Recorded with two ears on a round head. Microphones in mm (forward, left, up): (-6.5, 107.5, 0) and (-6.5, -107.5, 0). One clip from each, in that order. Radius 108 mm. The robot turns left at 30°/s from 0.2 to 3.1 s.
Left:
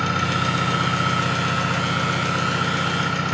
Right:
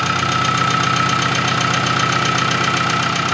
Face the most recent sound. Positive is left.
turn(degrees=-125)